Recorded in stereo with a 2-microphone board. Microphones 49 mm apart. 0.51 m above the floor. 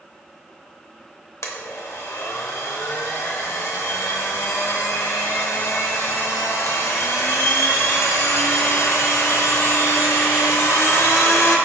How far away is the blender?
About 0.7 m.